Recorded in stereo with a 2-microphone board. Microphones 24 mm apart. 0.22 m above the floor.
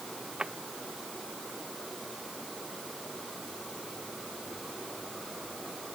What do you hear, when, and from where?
0.4 s a drawer: 30° right (ahead or behind)